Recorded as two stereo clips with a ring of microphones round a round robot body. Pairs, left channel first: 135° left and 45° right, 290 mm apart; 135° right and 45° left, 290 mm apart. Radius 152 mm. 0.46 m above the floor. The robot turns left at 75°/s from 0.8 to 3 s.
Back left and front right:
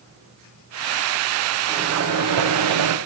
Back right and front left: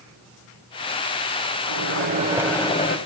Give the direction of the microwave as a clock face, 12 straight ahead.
11 o'clock.